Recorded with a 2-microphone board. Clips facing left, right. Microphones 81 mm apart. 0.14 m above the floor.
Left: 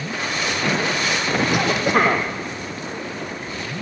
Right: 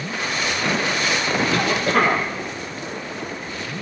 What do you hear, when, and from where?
1.5 s a cough: 15° left (ahead or behind), 5 m